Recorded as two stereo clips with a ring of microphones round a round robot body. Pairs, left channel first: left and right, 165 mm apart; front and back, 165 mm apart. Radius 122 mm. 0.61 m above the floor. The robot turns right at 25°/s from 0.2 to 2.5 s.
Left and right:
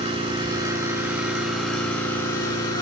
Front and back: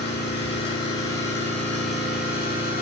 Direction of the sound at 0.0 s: 35° right.